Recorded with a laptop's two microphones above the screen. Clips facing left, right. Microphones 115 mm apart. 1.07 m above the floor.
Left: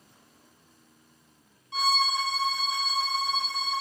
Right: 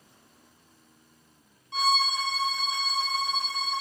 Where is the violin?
Centre (ahead or behind), 0.7 m.